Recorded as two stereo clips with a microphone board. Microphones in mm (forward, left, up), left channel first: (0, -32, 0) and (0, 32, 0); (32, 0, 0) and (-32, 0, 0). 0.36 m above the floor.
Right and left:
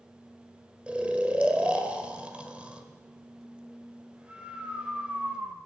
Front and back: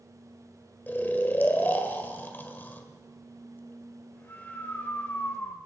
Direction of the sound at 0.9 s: 30° left.